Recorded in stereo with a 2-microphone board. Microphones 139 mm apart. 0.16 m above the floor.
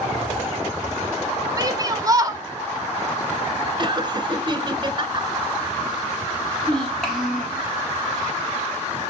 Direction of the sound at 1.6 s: 25° right (ahead or behind).